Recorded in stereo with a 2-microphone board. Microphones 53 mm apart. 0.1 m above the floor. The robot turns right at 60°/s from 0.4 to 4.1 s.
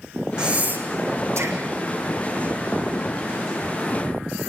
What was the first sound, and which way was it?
Breathing, 20° right (ahead or behind).